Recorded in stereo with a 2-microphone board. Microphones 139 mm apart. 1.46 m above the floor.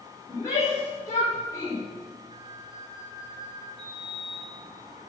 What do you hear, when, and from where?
0.3 s a shout: 25° left (ahead or behind), 4 m
2.3 s a flute: 40° right (ahead or behind), 5.5 m
3.8 s a sliding door: 35° left (ahead or behind), 5 m